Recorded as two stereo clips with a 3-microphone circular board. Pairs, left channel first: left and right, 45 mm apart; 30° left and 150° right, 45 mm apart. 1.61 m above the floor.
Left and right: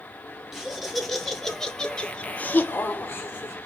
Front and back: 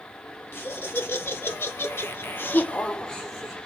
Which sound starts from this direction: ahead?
Laughter, at 0.5 s.